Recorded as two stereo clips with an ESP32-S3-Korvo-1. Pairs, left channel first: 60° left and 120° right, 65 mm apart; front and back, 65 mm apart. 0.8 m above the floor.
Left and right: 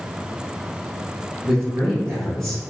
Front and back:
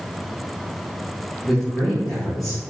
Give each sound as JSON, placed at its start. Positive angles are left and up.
{"t": 1.4, "sound": "a man speaking", "azimuth_deg": -80, "distance_m": 1.5}